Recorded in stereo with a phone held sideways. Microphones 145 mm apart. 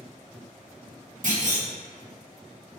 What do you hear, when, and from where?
1.2 s a clunk: 55° right (ahead or behind), 1.1 m